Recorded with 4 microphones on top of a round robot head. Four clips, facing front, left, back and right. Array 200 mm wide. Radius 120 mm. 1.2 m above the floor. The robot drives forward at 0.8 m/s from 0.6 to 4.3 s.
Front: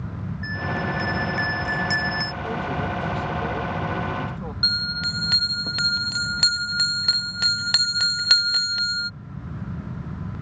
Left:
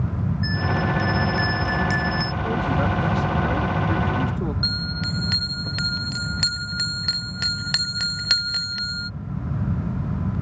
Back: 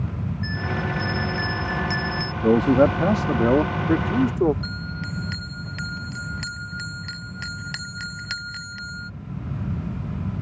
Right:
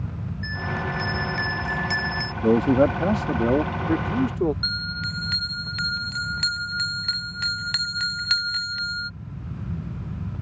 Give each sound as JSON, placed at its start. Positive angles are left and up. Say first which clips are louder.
{"t": 0.4, "sound": "a bell", "louder": "left 4 dB, front 1 dB", "azimuth_deg": -15}
{"t": 2.4, "sound": "a man speaking", "louder": "right 8 dB, back 14 dB", "azimuth_deg": -140}
{"t": 4.6, "sound": "a bell", "louder": "left 1 dB, front 2 dB", "azimuth_deg": 40}